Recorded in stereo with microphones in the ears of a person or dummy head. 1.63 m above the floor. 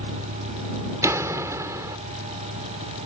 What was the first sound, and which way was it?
A vehicle, 65° right (ahead or behind).